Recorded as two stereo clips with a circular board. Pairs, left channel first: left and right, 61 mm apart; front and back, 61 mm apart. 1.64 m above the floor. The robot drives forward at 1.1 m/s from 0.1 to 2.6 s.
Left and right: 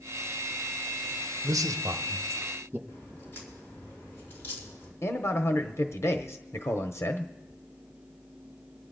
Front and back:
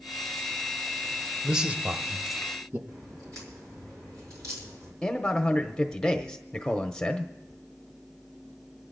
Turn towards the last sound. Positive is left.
turn(degrees=75)